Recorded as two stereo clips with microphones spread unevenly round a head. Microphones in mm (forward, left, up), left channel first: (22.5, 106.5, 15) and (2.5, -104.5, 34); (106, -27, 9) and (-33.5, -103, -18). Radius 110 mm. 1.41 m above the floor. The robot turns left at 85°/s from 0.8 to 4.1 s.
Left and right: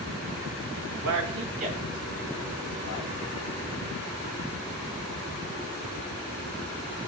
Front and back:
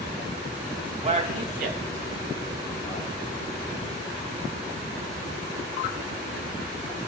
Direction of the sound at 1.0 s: 105° right.